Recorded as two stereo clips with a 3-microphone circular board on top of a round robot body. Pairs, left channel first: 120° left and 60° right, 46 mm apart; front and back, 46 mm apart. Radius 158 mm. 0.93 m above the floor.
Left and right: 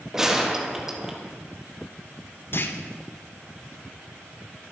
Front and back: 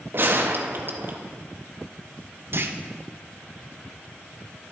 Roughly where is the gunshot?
Behind right.